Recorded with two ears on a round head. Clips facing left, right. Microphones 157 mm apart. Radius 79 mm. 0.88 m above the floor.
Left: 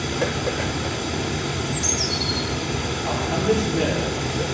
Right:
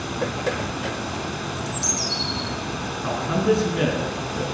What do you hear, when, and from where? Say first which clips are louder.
0.0 s running water: left 2 dB; 20° left (ahead or behind), 2.5 m
1.6 s a bird: left 3 dB; 25° right (ahead or behind), 6 m
3.0 s a man speaking: right 1 dB; 85° right, 9 m